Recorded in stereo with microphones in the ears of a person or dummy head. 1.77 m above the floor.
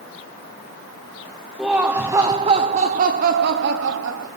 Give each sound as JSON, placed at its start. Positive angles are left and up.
{"t": 1.6, "sound": "laughter", "side_deg": 5, "distance_m": 1.1}